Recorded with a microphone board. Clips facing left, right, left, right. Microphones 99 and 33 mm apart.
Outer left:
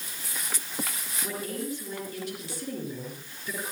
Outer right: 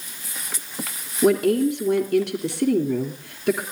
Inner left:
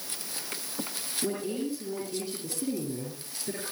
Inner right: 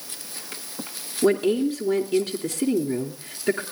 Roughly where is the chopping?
I don't hear chopping.